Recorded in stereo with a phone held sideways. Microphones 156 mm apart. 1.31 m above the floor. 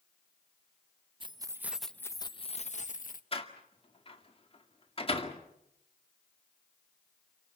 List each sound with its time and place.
1.2 s keys jangling: 35° right (ahead or behind), 0.8 m; by 3.2 s 60° left (ahead or behind), 1.1 m
3.3 s a door slam: 35° left (ahead or behind), 2 m